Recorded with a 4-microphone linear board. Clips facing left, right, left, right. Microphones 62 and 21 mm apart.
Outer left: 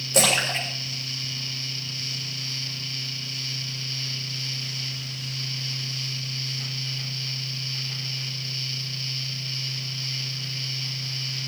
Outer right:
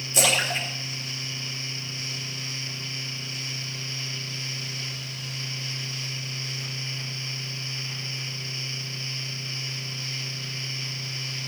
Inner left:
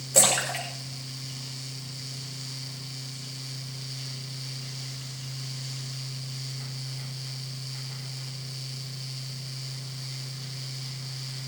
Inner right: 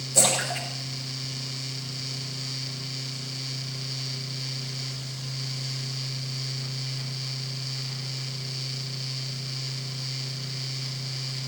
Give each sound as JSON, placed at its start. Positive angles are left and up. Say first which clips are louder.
{"t": 0.1, "sound": "a splash", "louder": "outer left 2 dB, inner left 1 dB", "side_deg": 65, "distance_m": 8.0}